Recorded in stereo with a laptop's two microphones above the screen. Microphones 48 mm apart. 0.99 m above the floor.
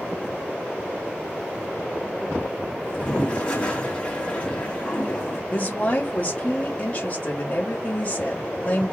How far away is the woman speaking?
About 1.8 m.